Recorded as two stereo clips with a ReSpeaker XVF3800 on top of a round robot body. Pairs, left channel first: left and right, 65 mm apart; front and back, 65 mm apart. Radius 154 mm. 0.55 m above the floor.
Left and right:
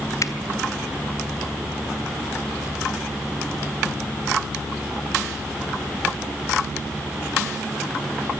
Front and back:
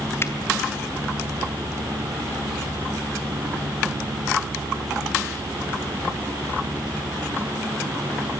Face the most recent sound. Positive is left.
turn(degrees=55)